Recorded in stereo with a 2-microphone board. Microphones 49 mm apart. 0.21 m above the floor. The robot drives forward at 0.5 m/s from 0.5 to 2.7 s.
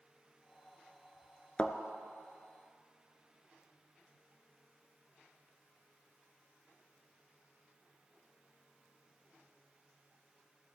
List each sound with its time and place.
1.6 s a thud: 25° left (ahead or behind), 0.5 m; by 1.8 s 20° left (ahead or behind), 0.6 m